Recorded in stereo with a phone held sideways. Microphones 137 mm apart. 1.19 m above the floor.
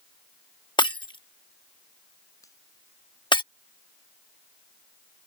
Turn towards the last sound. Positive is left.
turn(degrees=25)  # may be behind; listen again after turning